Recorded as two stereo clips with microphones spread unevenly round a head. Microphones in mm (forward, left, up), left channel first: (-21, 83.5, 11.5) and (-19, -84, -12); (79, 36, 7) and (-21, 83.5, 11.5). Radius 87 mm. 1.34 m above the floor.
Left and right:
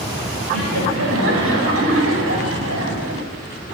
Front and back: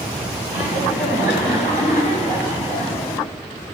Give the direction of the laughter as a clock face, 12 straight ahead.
2 o'clock.